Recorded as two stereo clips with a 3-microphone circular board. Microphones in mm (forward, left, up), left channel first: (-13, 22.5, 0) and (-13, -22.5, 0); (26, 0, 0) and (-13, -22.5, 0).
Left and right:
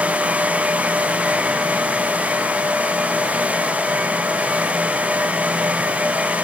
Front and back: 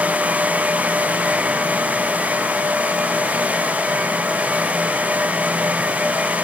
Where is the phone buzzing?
I don't hear a phone buzzing.